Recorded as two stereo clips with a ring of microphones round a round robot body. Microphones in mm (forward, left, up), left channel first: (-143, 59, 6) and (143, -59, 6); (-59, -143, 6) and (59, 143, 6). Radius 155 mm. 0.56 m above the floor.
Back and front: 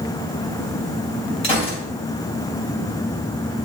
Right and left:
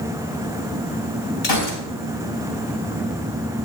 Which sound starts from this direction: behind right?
A gunshot, at 1.4 s.